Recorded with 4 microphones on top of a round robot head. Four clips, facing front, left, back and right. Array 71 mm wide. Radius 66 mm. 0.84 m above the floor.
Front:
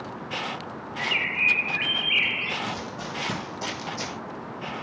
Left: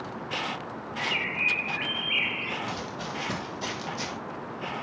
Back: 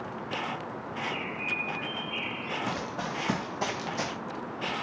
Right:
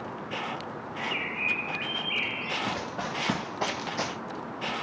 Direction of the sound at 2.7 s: 125° right.